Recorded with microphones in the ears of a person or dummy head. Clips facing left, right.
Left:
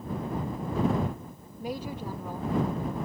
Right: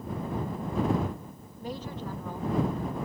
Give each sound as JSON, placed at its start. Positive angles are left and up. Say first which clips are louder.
{"t": 1.6, "sound": "a woman speaking", "louder": "left 2 dB", "side_deg": 10}